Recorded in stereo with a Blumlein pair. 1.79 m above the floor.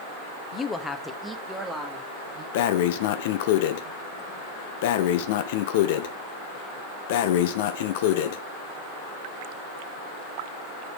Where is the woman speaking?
25° left, 0.8 m; by 2.4 s 15° right, 2.5 m.